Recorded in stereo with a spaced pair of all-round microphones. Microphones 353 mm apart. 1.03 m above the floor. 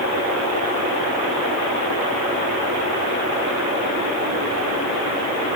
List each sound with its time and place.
Only background noise.